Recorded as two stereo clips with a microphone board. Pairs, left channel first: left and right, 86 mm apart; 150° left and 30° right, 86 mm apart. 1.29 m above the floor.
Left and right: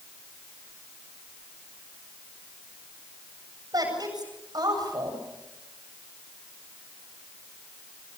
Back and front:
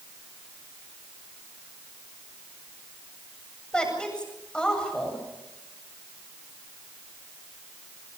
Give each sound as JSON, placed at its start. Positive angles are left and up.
{"t": 3.7, "sound": "a woman speaking", "azimuth_deg": -130, "distance_m": 8.0}